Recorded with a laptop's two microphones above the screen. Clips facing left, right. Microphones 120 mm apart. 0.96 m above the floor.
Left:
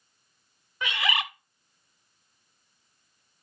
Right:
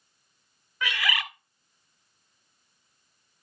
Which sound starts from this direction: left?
A bird, at 0.8 s.